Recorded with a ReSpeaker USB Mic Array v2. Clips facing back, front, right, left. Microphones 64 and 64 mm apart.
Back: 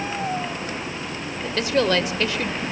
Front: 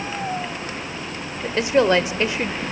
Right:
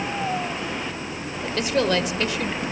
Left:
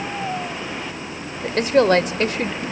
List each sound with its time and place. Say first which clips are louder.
1.4 s a woman speaking: front 4 dB, left 6 dB; 60° left, 1.3 m